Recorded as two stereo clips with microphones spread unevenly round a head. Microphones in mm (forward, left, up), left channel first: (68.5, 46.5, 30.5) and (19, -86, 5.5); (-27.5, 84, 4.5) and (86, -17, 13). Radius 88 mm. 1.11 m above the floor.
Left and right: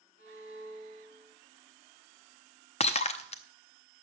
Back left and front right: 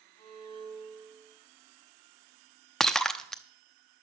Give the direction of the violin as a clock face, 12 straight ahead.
10 o'clock.